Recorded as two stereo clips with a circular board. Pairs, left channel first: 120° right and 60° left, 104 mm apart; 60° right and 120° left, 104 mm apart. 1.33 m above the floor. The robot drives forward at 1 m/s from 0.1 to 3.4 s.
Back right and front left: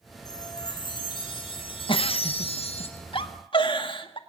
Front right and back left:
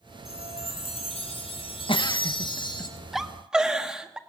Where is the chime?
70° right, 4.5 m; by 2.9 s 105° right, 4.5 m.